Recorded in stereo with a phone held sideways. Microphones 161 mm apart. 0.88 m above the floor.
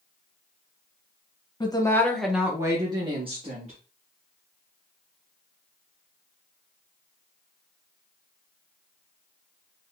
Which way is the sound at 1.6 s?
30° left (ahead or behind).